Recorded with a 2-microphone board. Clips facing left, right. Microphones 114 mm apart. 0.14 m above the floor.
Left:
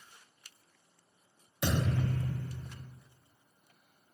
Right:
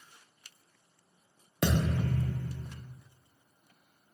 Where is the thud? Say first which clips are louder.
Right 2 dB; 80° right, 0.9 m.